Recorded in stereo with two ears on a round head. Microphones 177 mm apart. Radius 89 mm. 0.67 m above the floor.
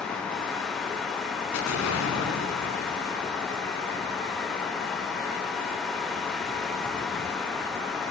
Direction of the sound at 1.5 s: 80° left.